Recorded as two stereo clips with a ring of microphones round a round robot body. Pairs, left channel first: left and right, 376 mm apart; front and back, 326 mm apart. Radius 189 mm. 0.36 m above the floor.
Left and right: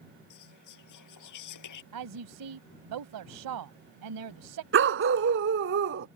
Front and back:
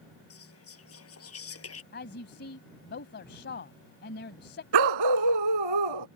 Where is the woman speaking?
60° right.